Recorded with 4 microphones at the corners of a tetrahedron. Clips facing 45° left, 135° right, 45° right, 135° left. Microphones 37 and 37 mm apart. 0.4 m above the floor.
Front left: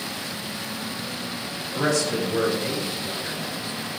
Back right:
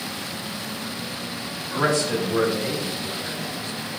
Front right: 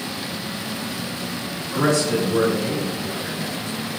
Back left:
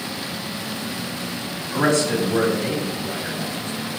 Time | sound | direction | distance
1.7 | a man speaking | 175° left | 3 m